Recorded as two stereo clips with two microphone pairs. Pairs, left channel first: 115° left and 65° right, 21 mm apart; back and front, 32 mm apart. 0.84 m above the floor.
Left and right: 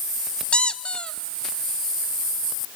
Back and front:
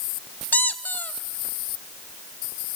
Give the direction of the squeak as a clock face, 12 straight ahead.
7 o'clock.